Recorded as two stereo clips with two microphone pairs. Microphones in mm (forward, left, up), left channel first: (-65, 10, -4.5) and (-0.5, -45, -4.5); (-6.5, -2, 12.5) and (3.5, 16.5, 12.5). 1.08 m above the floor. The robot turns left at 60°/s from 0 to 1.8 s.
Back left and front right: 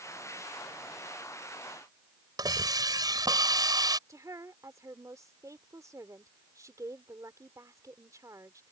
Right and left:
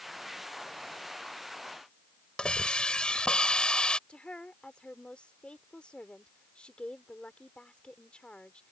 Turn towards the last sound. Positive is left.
turn(degrees=-90)